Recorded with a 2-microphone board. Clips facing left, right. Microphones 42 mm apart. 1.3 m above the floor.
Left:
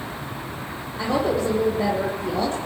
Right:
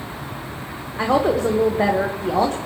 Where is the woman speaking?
75° right (ahead or behind), 1.3 m.